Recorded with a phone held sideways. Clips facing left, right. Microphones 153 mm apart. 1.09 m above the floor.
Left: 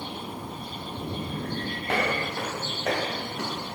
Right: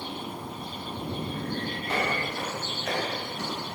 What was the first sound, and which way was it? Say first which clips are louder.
Footsteps: left 3 dB; 65° left (ahead or behind).